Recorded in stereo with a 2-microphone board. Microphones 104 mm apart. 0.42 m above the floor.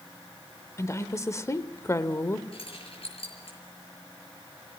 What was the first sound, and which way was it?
A woman speaking, 30° left (ahead or behind).